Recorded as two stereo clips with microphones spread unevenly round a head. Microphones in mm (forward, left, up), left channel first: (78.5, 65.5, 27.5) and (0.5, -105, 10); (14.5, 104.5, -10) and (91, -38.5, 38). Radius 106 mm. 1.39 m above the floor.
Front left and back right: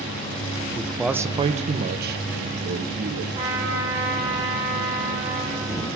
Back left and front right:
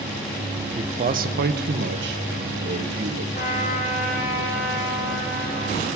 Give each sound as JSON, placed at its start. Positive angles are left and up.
{"t": 0.8, "sound": "a man speaking", "azimuth_deg": -10, "distance_m": 0.8}
{"t": 3.3, "sound": "a trumpet", "azimuth_deg": 175, "distance_m": 4.5}